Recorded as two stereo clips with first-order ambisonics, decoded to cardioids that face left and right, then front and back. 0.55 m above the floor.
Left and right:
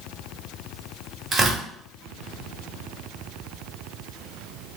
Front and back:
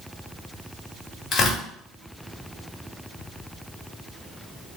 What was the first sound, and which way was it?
Tearing paper, 40° right.